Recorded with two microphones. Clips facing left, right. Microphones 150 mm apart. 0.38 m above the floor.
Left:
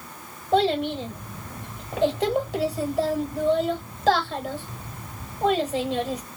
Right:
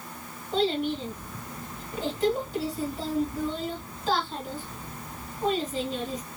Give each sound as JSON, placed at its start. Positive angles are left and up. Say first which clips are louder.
{"t": 0.5, "sound": "a child speaking", "louder": "left 5 dB", "side_deg": 65, "distance_m": 1.2}